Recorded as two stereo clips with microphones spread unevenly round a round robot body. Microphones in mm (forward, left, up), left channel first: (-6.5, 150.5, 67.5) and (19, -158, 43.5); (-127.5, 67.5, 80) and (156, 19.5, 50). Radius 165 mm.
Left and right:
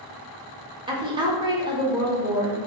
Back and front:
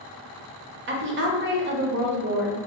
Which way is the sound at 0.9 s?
20° right.